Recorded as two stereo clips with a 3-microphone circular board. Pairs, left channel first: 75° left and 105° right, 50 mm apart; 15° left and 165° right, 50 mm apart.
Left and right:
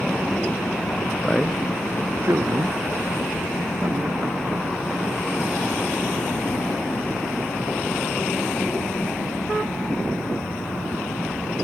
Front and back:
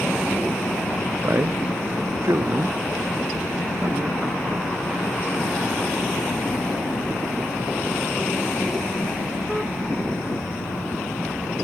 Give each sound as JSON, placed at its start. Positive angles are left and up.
{"t": 1.2, "sound": "a man speaking", "azimuth_deg": 150, "distance_m": 0.5}